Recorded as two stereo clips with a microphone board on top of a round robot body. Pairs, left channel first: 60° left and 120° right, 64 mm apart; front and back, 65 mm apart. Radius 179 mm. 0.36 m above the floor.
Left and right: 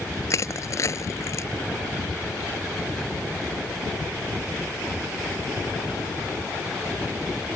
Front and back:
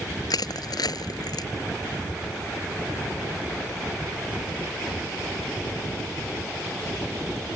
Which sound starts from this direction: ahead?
Crushing, at 0.3 s.